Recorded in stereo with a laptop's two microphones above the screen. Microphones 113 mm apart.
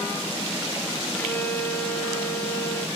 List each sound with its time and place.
1.1 s a violin: 15° left (ahead or behind), 1.0 m